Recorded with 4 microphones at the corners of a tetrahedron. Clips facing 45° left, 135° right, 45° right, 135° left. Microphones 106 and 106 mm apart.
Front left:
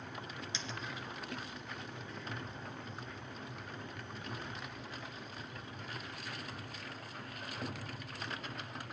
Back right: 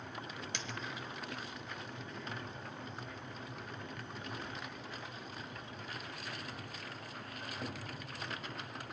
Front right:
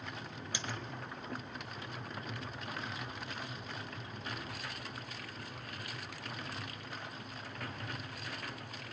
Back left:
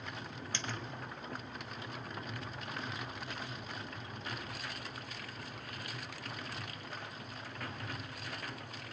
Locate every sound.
0.5 s a dropped coin: 120° right, 0.8 m